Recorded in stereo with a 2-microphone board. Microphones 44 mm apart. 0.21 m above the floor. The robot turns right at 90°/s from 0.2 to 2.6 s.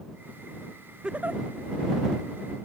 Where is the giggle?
160° right; by 1.4 s 130° right.